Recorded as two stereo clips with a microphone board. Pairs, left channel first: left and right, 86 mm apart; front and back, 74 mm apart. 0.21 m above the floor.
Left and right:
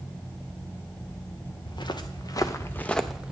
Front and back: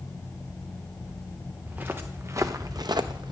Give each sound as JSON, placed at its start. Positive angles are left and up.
{"t": 1.6, "sound": "footsteps", "azimuth_deg": 115, "distance_m": 1.1}